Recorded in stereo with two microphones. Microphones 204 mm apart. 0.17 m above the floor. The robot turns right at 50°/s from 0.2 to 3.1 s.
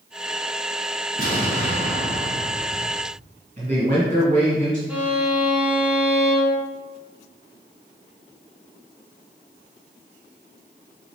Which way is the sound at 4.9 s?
5° right (ahead or behind).